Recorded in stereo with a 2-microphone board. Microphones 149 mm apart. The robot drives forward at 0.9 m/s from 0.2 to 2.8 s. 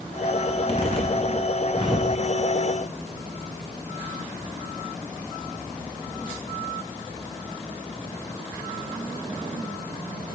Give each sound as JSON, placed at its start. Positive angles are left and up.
{"t": 0.5, "sound": "a zipper", "side_deg": 45, "distance_m": 3.0}